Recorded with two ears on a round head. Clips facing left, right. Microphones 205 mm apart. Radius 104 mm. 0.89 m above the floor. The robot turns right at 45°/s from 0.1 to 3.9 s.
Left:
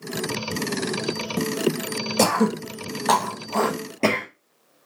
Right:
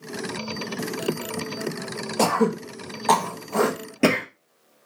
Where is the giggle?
I don't hear a giggle.